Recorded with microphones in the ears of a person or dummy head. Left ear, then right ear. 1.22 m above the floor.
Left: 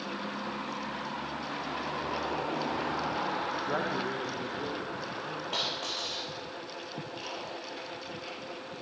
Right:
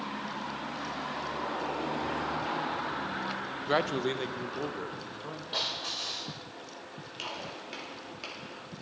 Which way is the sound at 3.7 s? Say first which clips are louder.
Right 3 dB; 70° right (ahead or behind).